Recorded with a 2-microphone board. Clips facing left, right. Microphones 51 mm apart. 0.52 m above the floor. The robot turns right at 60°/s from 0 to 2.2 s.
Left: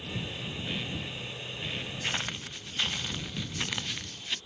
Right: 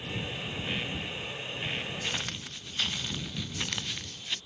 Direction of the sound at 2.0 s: 25° left (ahead or behind).